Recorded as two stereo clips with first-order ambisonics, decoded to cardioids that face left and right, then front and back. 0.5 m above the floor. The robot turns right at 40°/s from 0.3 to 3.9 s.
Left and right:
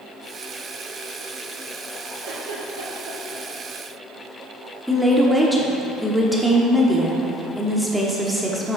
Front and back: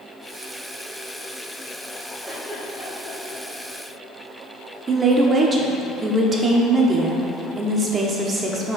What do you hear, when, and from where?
2.2 s a giggle: 105° right, 2 m; by 3.4 s 60° right, 2 m
4.9 s a woman speaking: straight behind, 0.7 m